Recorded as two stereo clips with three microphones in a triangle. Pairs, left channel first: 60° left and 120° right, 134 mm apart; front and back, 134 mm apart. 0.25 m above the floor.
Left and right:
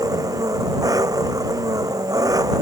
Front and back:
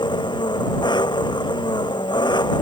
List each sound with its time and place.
0.0 s an engine running: 55° right